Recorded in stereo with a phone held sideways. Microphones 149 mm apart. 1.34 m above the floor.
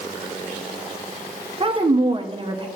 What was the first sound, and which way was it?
A woman speaking, 35° right (ahead or behind).